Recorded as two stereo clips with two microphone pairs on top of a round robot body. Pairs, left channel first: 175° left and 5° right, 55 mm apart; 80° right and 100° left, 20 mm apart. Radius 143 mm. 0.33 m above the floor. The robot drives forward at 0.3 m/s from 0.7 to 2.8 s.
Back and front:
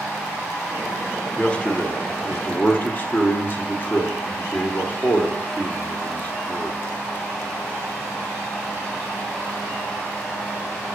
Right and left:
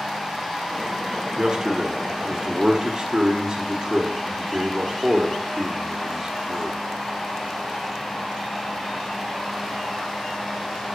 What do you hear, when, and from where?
1.4 s a man speaking: 110° left, 1.0 m; by 6.8 s 140° left, 1.2 m